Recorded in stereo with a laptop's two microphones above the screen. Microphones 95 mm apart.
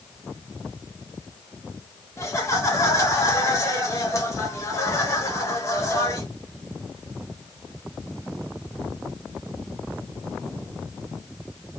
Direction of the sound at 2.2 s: 30° left (ahead or behind).